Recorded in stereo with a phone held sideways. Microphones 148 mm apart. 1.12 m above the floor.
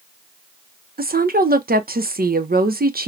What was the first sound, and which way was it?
A woman speaking, 85° right.